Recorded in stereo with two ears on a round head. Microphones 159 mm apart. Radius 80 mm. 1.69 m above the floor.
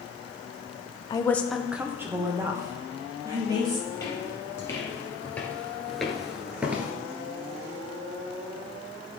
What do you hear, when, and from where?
1.1 s a woman speaking: 25° left (ahead or behind), 0.6 m; by 3.8 s 25° right (ahead or behind), 3 m
3.9 s footsteps: 20° left (ahead or behind), 2.5 m; by 6.9 s 10° right (ahead or behind), 1.7 m